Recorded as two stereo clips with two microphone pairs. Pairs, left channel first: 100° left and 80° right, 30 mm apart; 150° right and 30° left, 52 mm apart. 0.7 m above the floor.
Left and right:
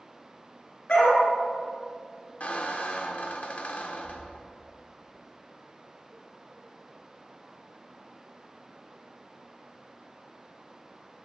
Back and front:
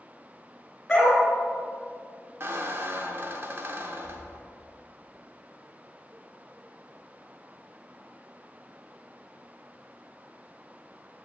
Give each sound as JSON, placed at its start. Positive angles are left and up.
{"t": 0.9, "sound": "a dog barking", "azimuth_deg": 130, "distance_m": 3.0}
{"t": 2.4, "sound": "a squeak", "azimuth_deg": 75, "distance_m": 0.9}